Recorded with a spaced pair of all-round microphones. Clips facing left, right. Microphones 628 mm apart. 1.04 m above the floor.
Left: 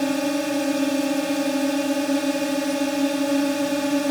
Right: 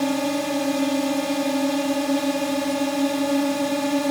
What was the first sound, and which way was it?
A drone, 30° right (ahead or behind).